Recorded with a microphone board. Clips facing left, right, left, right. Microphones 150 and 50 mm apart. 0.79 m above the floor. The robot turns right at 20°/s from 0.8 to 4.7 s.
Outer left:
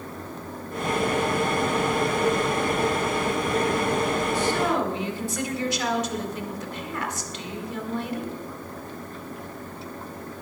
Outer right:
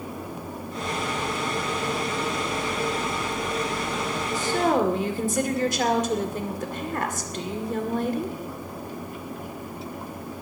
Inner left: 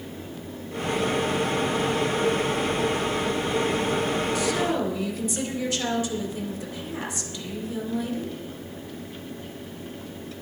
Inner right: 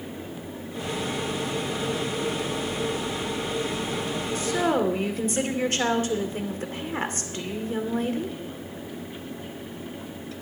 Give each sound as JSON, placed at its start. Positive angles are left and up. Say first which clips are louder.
{"t": 4.3, "sound": "a woman speaking", "louder": "outer right 5 dB, inner right 1 dB", "side_deg": -40, "distance_m": 2.0}